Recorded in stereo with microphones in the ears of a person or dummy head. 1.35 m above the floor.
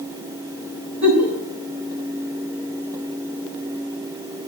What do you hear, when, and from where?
1.0 s a giggle: 65° right (ahead or behind), 7 m